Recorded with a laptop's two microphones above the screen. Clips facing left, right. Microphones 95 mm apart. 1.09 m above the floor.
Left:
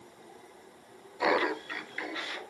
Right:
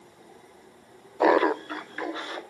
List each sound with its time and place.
1.2 s laughter: 50° right (ahead or behind), 0.5 m; by 2.4 s 35° right (ahead or behind), 1.9 m